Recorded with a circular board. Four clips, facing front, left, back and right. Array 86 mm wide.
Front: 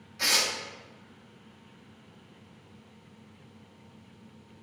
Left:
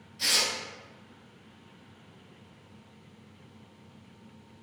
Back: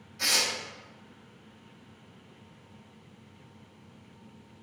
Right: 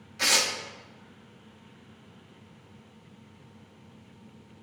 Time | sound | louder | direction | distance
0.2 | tearing paper | right 4 dB, front 1 dB | 75° right | 0.5 m